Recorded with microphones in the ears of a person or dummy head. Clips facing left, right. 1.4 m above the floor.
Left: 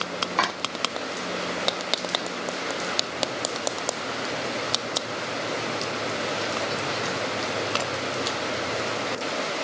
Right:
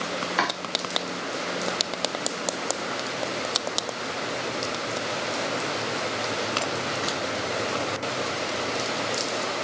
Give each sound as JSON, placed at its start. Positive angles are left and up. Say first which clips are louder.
{"t": 0.4, "sound": "chopping", "louder": "even", "side_deg": -10, "distance_m": 3.5}